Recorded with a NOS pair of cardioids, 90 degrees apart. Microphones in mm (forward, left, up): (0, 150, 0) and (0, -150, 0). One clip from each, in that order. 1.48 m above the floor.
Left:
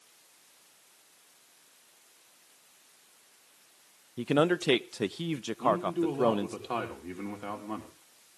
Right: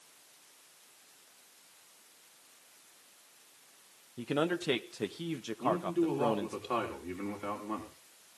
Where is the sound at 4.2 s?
30° left, 0.5 m.